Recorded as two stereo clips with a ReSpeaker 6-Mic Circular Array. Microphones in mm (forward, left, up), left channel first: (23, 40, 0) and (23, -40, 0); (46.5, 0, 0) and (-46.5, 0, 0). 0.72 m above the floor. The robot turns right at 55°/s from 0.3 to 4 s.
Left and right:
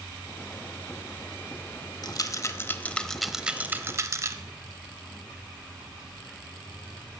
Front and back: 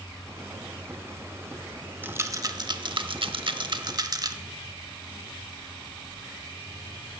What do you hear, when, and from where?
2.0 s a rattle: 115° left, 0.8 m; by 4.4 s 140° right, 0.8 m